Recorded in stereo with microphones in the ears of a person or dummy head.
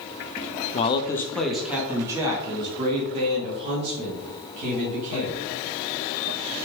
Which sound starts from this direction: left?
A man speaking, at 0.7 s.